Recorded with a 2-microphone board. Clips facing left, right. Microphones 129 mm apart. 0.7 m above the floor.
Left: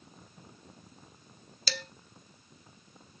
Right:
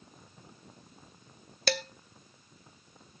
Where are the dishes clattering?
60° right (ahead or behind), 0.8 m.